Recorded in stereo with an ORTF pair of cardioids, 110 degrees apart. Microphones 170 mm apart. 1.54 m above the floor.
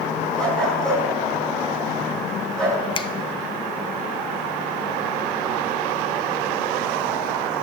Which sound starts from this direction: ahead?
A dog barking, at 0.4 s.